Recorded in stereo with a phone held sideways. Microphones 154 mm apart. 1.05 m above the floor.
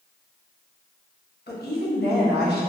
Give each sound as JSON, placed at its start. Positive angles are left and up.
{"t": 1.5, "sound": "a woman speaking", "side_deg": 80, "distance_m": 0.9}